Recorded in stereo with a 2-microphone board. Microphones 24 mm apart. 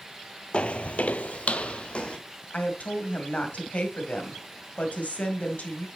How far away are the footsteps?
About 0.6 m.